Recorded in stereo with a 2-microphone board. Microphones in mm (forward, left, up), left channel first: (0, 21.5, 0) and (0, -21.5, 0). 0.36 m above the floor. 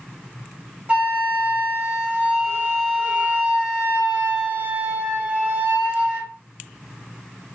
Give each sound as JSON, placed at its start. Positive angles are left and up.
{"t": 0.9, "sound": "a flute", "side_deg": -30, "distance_m": 1.6}